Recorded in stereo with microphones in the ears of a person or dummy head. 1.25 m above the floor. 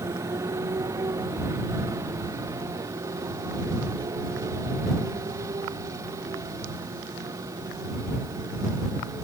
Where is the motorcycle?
15° right (ahead or behind); by 9.2 s 20° right (ahead or behind).